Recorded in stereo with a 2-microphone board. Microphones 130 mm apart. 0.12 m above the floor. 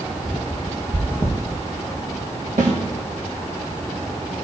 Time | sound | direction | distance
0.9 | chewing | 25° right (ahead or behind) | 2.5 m
2.6 | a snare drum | 75° right (ahead or behind) | 5 m